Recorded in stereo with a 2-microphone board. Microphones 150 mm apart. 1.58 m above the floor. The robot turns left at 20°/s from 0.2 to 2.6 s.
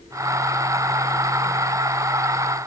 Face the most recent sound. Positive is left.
No sound to turn to.